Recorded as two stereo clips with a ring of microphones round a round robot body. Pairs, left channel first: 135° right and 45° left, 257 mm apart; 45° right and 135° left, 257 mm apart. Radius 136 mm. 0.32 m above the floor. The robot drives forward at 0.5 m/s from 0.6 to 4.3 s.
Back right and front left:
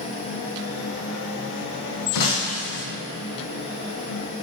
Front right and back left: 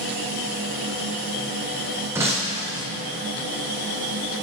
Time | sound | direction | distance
2.1 | breaking glass | 145° right | 1.8 m